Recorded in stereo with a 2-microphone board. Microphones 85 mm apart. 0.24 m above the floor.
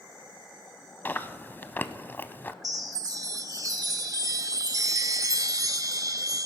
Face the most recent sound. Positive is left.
turn(degrees=-50)  # may be behind; listen again after turning